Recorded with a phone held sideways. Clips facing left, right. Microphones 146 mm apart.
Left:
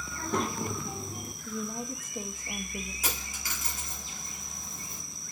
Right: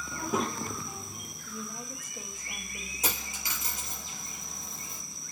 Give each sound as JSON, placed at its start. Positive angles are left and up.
{"t": 0.1, "sound": "a child speaking", "side_deg": -25, "distance_m": 0.5}
{"t": 1.4, "sound": "a woman speaking", "side_deg": 45, "distance_m": 1.2}
{"t": 3.0, "sound": "a dropped coin", "side_deg": -25, "distance_m": 6.0}